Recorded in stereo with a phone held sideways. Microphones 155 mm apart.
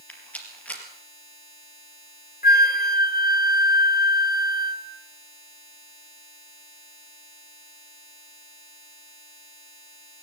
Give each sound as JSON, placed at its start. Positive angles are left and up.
{"t": 0.1, "sound": "a rattle", "side_deg": 10, "distance_m": 3.5}
{"t": 2.4, "sound": "a flute", "side_deg": 75, "distance_m": 1.0}